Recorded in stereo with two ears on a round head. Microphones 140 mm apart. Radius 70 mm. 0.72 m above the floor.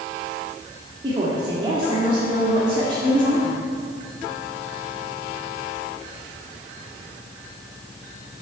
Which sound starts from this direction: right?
A woman speaking, at 1.0 s.